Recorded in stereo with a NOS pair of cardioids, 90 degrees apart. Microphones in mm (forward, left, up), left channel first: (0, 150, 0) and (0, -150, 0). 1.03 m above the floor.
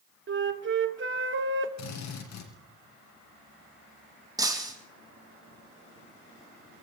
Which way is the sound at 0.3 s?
40° right.